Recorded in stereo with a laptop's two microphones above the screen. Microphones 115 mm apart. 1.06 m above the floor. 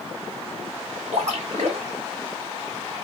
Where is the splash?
80° right, 1.6 m.